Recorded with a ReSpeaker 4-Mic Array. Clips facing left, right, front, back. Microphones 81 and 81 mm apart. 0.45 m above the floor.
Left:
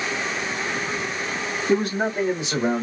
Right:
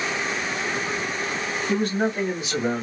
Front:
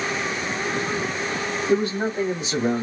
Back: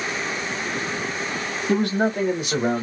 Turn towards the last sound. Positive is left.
turn(degrees=150)